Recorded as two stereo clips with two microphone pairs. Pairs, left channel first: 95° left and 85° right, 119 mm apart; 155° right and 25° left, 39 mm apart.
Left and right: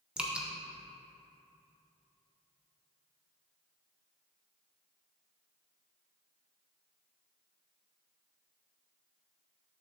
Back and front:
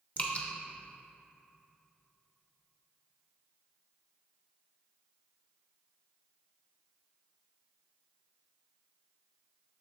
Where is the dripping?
165° right, 0.7 m.